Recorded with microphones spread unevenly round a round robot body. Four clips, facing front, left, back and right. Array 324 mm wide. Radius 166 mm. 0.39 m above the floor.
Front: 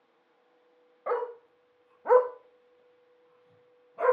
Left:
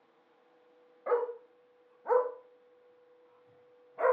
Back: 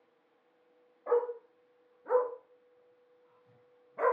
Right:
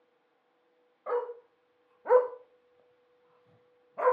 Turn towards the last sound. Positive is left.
turn(degrees=-105)